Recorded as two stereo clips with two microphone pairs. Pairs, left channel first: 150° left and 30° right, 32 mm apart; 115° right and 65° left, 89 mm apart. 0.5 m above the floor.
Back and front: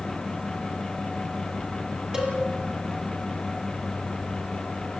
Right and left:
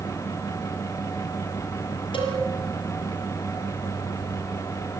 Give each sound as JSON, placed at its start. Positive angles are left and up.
{"t": 2.1, "sound": "a cowbell", "azimuth_deg": -90, "distance_m": 6.0}